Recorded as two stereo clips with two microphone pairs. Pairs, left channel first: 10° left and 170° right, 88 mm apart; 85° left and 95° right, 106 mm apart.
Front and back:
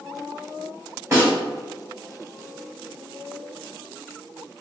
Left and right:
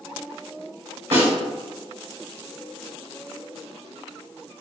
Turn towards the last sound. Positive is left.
turn(degrees=-115)